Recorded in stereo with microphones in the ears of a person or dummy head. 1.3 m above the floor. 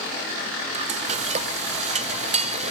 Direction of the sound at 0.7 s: 35° right (ahead or behind).